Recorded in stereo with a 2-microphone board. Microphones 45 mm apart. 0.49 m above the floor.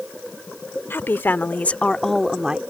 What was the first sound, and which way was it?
A woman speaking, 60° left (ahead or behind).